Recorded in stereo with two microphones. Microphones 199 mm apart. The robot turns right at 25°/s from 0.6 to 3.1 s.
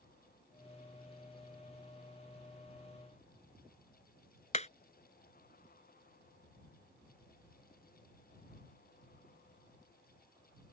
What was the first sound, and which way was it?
Hammering, 35° left (ahead or behind).